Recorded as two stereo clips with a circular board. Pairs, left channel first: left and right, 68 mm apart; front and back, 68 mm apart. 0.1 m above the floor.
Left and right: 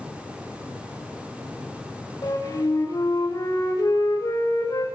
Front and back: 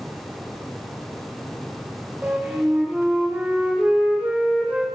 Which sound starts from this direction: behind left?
A flute, at 2.2 s.